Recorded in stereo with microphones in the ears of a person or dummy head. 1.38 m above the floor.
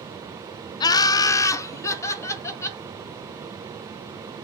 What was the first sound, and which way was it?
Laughter, 20° left (ahead or behind).